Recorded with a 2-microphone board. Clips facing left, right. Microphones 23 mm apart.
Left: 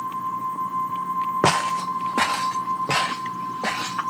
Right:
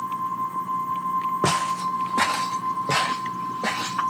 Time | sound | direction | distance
1.4 | footsteps | 65° left (ahead or behind) | 0.7 m